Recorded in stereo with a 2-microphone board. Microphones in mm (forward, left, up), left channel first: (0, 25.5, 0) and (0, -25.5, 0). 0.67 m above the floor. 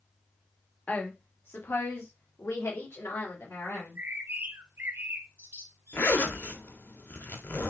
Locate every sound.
0.9 s a woman speaking: 30° left (ahead or behind), 1.2 m; by 4.0 s 60° left (ahead or behind), 3 m
3.8 s a bird: 45° right (ahead or behind), 0.8 m
5.9 s a zipper: 40° left (ahead or behind), 0.9 m